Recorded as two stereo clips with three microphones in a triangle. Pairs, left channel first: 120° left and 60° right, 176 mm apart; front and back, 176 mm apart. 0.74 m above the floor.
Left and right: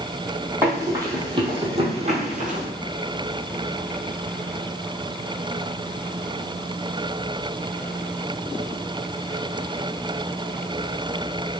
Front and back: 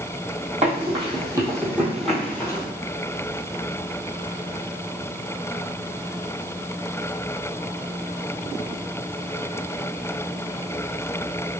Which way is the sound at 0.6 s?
135° right.